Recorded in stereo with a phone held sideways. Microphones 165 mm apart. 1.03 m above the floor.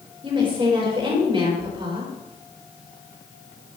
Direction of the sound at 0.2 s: 30° right (ahead or behind).